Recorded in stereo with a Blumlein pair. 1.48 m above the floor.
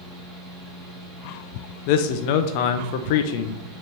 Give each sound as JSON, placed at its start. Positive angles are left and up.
{"t": 0.0, "sound": "a fan", "azimuth_deg": -15, "distance_m": 2.5}
{"t": 1.9, "sound": "a man speaking", "azimuth_deg": 45, "distance_m": 0.6}